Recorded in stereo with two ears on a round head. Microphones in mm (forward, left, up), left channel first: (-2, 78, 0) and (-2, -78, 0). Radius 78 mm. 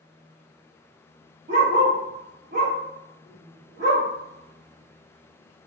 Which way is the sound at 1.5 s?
50° right (ahead or behind).